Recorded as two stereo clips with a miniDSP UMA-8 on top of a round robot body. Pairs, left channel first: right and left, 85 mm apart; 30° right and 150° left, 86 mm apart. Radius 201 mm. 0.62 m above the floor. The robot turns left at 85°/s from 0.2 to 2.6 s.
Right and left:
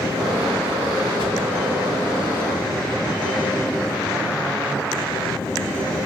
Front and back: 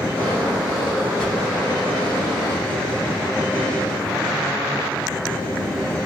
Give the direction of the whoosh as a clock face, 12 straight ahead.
4 o'clock.